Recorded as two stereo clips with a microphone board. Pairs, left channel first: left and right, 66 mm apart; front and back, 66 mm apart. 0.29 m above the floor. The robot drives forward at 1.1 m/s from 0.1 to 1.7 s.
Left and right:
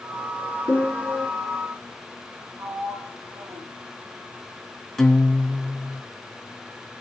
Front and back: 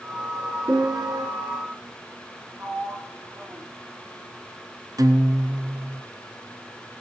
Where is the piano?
155° left, 3.5 m; by 1.3 s 160° left, 4 m.